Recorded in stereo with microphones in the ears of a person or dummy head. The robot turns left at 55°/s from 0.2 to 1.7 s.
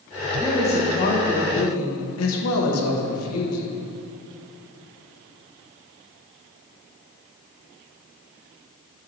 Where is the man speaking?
165° left, 1.3 m; by 3.9 s 90° left, 1.3 m.